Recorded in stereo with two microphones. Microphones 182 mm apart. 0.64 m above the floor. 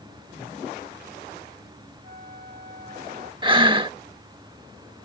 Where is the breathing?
30° right (ahead or behind).